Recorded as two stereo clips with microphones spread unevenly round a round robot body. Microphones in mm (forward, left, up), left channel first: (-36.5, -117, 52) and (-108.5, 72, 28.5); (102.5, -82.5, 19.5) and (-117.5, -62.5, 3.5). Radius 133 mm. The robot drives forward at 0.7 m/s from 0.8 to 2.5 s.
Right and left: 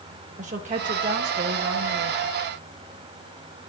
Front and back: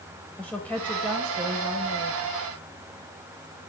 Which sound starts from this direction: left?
A woman speaking, at 0.4 s.